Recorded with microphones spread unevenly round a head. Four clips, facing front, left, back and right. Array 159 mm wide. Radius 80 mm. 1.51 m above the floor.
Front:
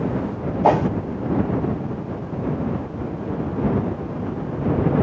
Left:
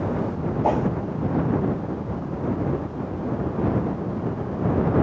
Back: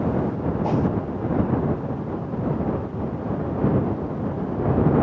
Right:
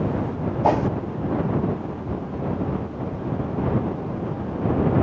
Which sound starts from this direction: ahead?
A whoosh, at 0.6 s.